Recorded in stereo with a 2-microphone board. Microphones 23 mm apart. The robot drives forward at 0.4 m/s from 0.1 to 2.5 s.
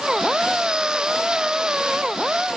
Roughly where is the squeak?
I don't hear a squeak.